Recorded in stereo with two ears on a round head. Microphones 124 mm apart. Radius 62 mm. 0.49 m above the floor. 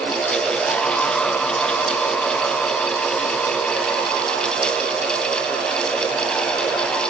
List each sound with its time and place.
Only background noise.